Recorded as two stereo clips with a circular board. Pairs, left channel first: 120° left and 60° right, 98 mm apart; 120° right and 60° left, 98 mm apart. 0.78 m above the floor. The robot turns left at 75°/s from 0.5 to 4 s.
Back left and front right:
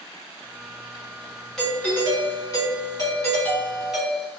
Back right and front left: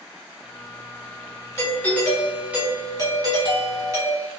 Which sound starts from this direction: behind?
A doorbell, at 1.6 s.